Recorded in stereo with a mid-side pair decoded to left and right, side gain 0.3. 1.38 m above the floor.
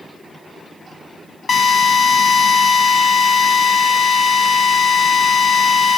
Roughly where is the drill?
Ahead left.